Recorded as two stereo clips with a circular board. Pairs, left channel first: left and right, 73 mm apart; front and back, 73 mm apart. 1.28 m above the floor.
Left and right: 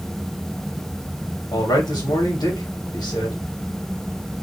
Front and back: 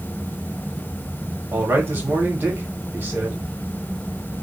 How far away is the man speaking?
About 1.7 m.